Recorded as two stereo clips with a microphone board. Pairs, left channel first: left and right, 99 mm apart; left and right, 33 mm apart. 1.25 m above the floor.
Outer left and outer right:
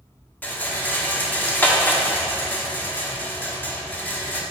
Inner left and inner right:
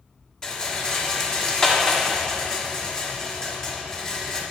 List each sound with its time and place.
0.4 s a rattle: 20° left (ahead or behind), 1.2 m